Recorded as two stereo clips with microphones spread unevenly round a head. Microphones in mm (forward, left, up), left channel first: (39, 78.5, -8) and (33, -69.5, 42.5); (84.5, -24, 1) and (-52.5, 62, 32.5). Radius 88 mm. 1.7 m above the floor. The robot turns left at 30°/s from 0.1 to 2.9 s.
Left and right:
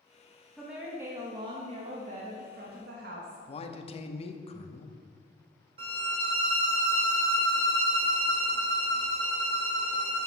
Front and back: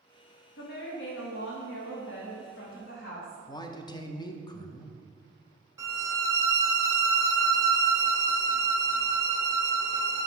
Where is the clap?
I don't hear a clap.